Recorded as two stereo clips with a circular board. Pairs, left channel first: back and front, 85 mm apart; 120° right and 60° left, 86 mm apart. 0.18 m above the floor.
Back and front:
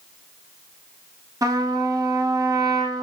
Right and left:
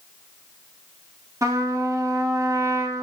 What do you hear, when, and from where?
1.4 s a trumpet: 25° left, 0.6 m